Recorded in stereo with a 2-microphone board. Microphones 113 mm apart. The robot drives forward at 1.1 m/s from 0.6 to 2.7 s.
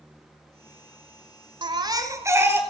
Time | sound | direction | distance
1.6 | a baby crying | 40° right (ahead or behind) | 0.7 m